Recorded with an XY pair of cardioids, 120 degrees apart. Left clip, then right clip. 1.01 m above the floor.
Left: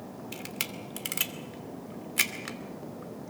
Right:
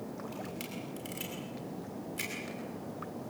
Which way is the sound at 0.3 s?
65° left.